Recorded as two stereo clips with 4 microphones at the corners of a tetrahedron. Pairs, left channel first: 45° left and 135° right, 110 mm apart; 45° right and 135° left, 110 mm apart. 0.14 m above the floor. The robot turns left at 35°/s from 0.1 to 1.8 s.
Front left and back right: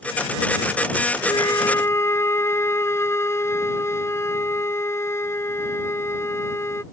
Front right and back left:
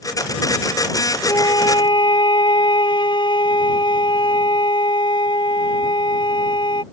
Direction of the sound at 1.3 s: 5° left.